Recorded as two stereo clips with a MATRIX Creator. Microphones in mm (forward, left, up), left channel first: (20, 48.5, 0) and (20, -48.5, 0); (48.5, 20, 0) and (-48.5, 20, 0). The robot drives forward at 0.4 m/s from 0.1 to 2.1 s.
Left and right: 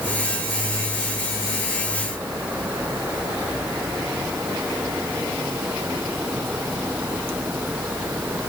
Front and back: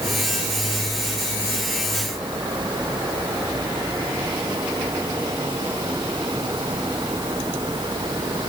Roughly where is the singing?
No singing in this recording.